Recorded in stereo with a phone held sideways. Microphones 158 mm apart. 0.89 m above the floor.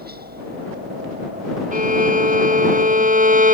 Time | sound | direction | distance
0.0 | a helicopter | 75° right (ahead or behind) | ?
1.7 | a violin | 55° right (ahead or behind) | ?